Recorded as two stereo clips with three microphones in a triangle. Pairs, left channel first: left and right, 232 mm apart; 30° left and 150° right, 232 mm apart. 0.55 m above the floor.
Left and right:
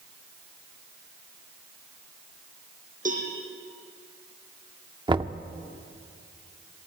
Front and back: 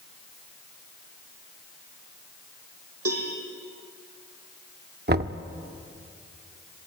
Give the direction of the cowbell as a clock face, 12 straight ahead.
5 o'clock.